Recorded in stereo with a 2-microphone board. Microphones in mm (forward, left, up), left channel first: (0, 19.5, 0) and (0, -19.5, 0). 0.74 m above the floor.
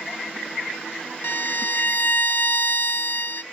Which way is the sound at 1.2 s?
60° left (ahead or behind).